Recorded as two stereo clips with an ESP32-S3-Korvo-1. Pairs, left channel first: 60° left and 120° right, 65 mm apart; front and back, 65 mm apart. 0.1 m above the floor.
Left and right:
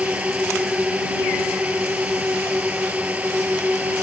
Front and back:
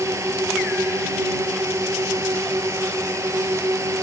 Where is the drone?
175° left; by 4.0 s straight behind.